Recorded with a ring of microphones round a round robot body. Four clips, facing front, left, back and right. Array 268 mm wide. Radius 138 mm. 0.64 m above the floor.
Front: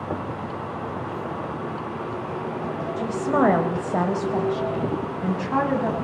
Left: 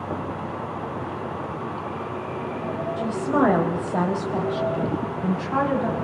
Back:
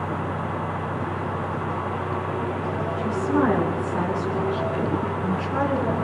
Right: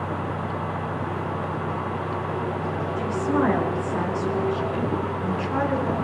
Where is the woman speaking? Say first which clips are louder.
Left 2 dB, front 1 dB; 25° left, 3 m.